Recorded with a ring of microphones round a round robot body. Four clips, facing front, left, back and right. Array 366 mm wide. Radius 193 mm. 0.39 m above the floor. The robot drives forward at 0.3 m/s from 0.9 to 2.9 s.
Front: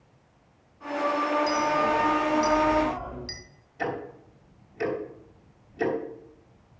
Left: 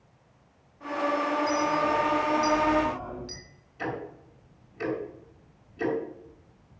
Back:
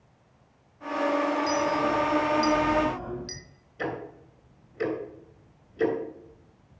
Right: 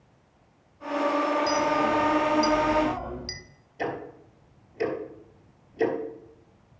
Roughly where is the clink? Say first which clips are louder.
Right 2 dB, front 1 dB; right.